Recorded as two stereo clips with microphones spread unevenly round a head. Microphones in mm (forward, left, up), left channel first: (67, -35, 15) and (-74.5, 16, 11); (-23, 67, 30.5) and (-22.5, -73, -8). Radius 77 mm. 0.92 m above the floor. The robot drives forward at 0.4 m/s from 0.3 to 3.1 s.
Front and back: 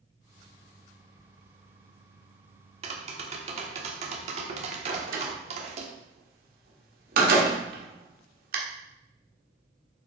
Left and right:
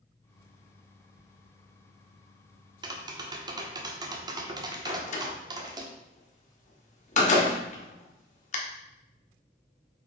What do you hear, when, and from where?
2.8 s tapping: 150° right, 1.1 m; by 5.9 s 155° right, 1.2 m
4.9 s a door slam: 125° left, 1.5 m